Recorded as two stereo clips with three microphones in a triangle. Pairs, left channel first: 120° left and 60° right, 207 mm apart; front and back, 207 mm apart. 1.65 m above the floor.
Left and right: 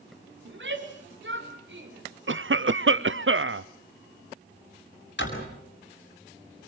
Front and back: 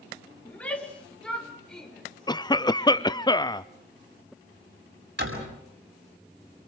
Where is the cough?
70° right, 0.7 m.